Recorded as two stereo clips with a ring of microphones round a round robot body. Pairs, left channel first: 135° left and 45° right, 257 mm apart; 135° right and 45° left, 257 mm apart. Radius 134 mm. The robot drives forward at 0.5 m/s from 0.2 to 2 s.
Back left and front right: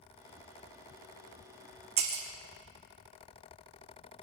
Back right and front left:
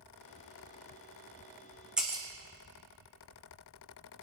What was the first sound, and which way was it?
Breaking glass, 40° right.